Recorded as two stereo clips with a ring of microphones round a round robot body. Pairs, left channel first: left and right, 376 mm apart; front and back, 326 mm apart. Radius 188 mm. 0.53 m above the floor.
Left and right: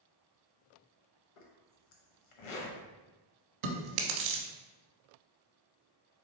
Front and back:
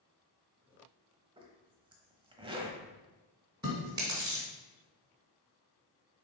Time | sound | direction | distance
1.4 | a zipper | 105° left | 0.9 m
3.6 | chewing | 100° right | 1.0 m